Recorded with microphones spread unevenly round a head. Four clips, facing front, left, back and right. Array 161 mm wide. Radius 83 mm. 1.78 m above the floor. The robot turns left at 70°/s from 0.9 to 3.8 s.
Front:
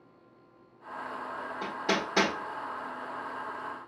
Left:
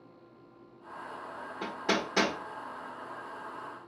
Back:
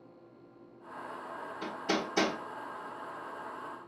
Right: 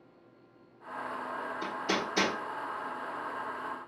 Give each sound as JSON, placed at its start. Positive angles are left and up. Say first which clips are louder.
{"t": 1.6, "sound": "hammering", "louder": "left 3 dB, front 2 dB", "azimuth_deg": 70, "distance_m": 1.1}